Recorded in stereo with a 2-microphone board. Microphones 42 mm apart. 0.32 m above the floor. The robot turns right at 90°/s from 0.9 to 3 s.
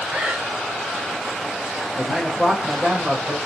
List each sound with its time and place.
0.1 s breathing: 25° right (ahead or behind), 1.0 m
2.0 s a man speaking: 5° left (ahead or behind), 0.9 m; by 3.4 s 25° right (ahead or behind), 0.9 m